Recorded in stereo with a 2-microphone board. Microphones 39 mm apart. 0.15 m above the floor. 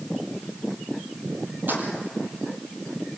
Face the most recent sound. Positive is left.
turn(degrees=-55)  # may be behind; listen again after turning